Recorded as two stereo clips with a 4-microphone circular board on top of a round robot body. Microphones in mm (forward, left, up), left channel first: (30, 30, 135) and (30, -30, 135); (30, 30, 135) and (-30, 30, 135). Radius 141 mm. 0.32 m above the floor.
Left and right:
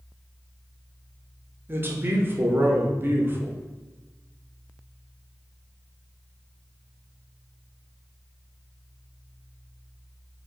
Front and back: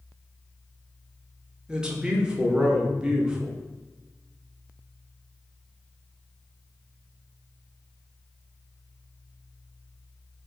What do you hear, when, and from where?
1.7 s a man speaking: 110° right, 1.1 m